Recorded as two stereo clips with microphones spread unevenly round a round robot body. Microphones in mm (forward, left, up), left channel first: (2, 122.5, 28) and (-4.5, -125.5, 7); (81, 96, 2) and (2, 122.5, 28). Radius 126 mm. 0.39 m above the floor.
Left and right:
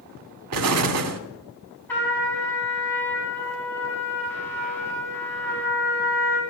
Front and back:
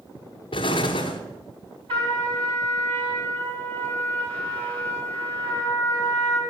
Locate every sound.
0.5 s an explosion: 60° right, 0.8 m
1.9 s a trumpet: 170° left, 3 m